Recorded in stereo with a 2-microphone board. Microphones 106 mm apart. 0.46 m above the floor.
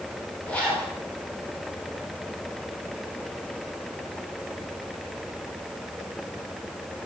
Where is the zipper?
10° left (ahead or behind), 3.5 m.